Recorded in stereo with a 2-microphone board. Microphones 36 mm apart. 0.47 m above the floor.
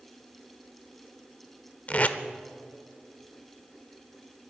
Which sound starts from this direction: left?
Tape being pulled, at 1.9 s.